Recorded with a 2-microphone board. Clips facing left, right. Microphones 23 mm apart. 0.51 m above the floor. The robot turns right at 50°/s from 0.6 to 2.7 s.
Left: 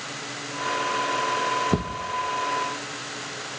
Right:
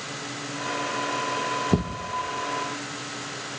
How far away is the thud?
About 2 m.